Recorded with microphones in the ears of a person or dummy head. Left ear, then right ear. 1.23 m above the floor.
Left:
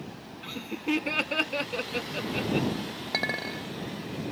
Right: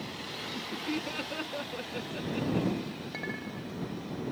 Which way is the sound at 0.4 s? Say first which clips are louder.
Left 5 dB; 30° left (ahead or behind).